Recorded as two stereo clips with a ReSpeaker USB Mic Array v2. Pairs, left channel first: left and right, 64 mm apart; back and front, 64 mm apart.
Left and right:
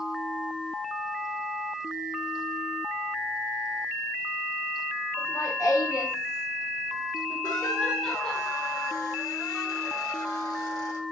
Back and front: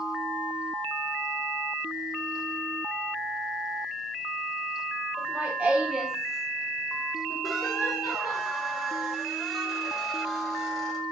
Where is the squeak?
90° left, 1.2 m.